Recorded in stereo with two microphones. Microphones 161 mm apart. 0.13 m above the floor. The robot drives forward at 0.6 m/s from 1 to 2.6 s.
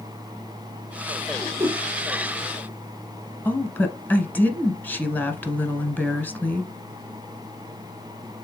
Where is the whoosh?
15° right (ahead or behind), 1.3 m.